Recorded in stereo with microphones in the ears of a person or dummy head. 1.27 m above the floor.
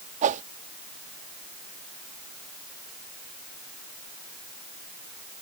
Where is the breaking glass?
No breaking glass in this recording.